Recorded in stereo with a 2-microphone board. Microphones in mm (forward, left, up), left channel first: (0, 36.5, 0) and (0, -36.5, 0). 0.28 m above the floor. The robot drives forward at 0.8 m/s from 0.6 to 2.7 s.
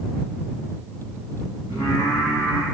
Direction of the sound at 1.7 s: 75° left (ahead or behind).